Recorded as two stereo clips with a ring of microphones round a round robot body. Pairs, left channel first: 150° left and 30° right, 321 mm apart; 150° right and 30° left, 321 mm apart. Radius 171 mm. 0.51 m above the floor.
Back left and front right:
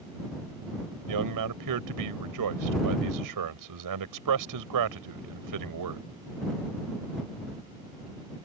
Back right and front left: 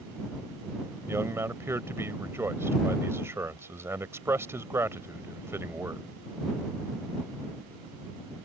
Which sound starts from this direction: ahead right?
A man speaking, at 1.1 s.